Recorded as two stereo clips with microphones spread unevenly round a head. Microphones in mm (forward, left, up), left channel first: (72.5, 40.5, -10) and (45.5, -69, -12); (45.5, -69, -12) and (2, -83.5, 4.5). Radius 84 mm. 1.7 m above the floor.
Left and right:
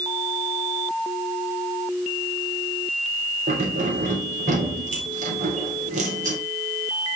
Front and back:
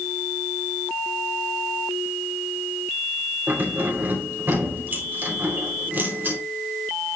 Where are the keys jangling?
125° right, 3.5 m.